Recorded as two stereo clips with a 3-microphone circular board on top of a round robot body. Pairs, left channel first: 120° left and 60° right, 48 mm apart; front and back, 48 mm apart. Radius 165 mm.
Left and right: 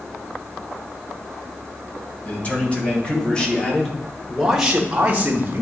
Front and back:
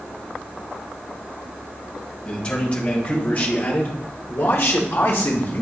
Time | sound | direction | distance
2.2 | a man speaking | 65° left | 2.5 m